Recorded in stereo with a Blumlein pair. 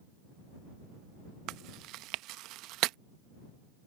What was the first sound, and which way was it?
Chewing, 40° right.